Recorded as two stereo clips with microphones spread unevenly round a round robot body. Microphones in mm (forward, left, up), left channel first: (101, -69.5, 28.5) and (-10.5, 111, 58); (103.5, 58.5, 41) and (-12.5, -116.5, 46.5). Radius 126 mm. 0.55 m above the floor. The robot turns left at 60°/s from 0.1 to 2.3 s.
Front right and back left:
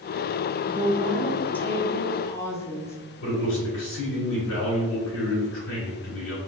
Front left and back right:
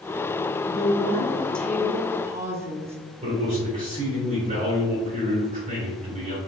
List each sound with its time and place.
0.7 s a woman speaking: 35° left, 0.7 m; by 3.0 s 65° right, 0.7 m
3.2 s a man speaking: 65° right, 1.9 m